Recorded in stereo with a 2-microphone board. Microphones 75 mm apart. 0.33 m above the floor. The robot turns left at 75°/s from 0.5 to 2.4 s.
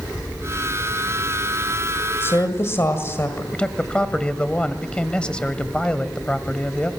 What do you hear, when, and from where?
2.2 s a woman speaking: 30° left (ahead or behind), 1.7 m; by 3.4 s 35° left (ahead or behind), 1.7 m
3.5 s a man speaking: 15° left (ahead or behind), 1.3 m